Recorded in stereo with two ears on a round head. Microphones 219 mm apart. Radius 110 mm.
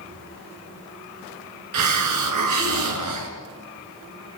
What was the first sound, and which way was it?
A hiss, 90° right.